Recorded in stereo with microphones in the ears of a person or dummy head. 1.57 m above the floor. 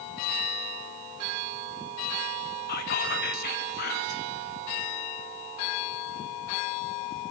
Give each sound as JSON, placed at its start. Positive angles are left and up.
{"t": 2.7, "sound": "whispering", "side_deg": 55, "distance_m": 2.5}